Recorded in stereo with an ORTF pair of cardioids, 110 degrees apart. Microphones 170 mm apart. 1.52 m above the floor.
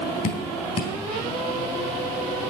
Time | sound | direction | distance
0.2 | dripping | 50° left | 3.5 m